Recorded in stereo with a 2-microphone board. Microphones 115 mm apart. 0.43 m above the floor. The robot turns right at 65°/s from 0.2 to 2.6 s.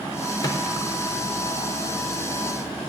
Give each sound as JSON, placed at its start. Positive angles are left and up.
{"t": 0.4, "sound": "a microwave", "side_deg": 35, "distance_m": 0.7}